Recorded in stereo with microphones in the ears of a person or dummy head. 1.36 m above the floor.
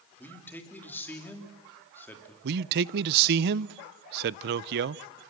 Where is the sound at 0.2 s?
10° left (ahead or behind), 3 m.